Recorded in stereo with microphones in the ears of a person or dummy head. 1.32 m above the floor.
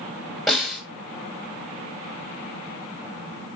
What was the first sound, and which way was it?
A snare drum, 5° left (ahead or behind).